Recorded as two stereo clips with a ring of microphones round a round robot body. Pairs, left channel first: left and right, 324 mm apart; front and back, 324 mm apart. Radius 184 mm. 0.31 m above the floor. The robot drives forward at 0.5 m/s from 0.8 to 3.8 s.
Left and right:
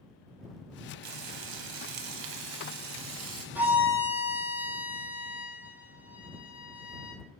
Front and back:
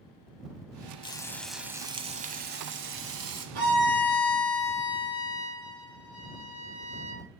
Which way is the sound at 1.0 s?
75° right.